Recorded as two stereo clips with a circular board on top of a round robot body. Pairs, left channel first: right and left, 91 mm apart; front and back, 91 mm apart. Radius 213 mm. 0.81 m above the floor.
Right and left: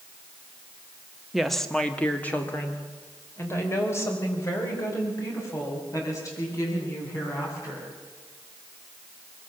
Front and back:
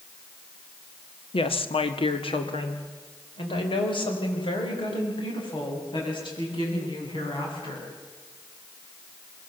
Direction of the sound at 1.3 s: 5° left.